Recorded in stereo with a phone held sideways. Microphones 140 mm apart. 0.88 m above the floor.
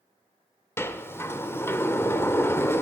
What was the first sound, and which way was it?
A sliding door, 15° left (ahead or behind).